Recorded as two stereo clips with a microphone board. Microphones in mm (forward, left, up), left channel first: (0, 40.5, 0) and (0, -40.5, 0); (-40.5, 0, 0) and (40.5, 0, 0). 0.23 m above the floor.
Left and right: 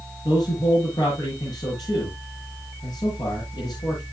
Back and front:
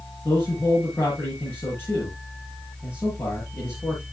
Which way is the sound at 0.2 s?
120° left.